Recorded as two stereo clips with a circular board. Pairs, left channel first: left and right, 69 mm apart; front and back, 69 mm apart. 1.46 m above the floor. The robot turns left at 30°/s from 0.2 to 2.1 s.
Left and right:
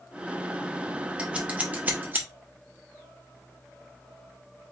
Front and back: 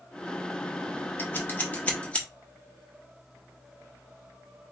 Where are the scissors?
30° right, 1.0 m; by 2.3 s 55° right, 1.0 m.